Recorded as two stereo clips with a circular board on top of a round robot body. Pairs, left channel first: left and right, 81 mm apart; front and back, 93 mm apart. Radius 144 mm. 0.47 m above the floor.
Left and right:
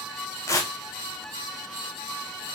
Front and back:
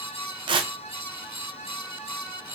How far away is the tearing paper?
About 0.7 m.